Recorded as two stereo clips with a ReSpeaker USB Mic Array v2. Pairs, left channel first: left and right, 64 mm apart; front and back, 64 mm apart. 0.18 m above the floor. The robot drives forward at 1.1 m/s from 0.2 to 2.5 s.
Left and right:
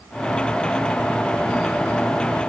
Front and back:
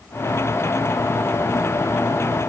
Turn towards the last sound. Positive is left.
No sound to turn to.